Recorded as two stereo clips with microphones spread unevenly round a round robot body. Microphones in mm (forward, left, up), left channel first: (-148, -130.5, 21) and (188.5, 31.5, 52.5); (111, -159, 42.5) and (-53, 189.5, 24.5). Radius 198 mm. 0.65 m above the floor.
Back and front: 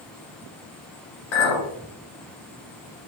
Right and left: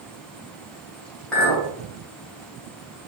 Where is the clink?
150° right, 1.3 m.